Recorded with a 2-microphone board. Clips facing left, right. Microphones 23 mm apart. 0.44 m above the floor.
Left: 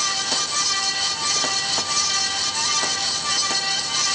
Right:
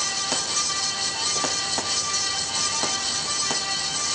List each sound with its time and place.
Only background noise.